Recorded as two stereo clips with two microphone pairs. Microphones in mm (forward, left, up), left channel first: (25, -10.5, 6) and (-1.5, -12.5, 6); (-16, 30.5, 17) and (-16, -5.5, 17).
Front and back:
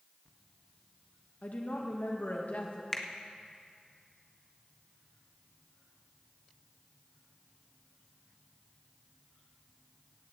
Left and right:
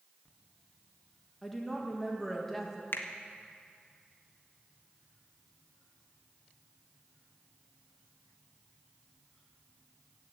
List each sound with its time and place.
1.4 s a woman speaking: 5° left, 1.7 m
2.9 s a finger snap: 75° left, 1.1 m